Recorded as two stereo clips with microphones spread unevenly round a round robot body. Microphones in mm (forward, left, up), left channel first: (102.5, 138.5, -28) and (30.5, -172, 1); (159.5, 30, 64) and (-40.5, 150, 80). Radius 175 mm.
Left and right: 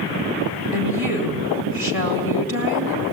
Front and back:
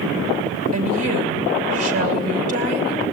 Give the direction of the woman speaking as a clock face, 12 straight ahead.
7 o'clock.